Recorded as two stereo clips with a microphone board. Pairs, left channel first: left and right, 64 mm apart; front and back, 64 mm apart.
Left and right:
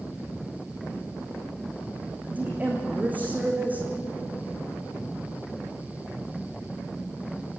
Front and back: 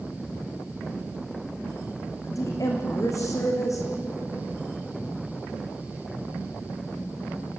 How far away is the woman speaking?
About 5 m.